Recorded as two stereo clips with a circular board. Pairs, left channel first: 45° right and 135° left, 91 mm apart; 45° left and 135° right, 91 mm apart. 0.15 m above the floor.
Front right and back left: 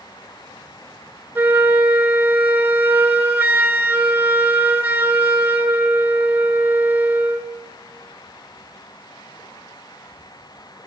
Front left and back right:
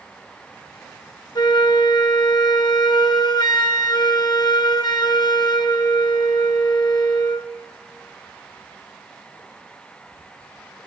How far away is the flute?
About 0.5 m.